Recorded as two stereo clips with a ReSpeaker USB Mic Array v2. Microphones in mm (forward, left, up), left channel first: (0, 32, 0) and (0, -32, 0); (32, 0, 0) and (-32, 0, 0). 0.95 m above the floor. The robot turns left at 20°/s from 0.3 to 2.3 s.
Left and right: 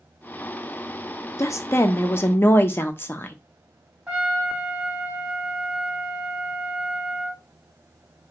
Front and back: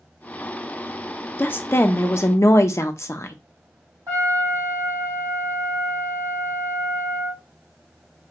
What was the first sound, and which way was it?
A woman speaking, 55° left.